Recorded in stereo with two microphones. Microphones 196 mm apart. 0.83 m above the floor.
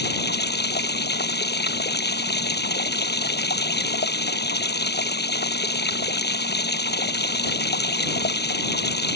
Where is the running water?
60° left (ahead or behind).